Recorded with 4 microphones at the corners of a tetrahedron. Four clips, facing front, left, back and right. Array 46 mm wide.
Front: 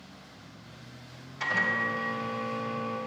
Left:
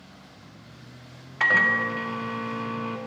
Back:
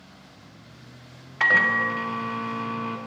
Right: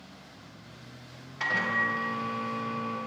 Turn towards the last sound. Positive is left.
turn(degrees=145)